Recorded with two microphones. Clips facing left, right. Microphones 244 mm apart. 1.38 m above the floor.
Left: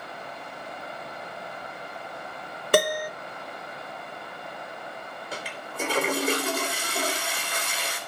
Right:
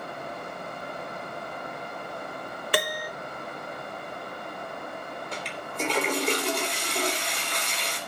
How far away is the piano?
About 1.0 m.